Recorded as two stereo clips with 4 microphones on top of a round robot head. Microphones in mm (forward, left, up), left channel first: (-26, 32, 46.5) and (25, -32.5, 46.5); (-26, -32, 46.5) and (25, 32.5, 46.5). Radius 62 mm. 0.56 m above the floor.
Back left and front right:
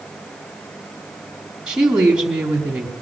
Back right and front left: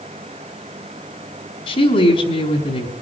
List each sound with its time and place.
1.7 s a woman speaking: 130° right, 4.5 m